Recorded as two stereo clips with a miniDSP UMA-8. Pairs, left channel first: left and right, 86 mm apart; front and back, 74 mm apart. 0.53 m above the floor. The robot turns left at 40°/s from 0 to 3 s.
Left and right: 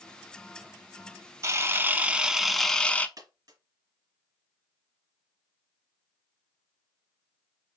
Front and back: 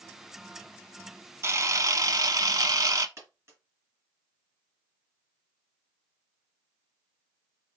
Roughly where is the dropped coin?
Behind right.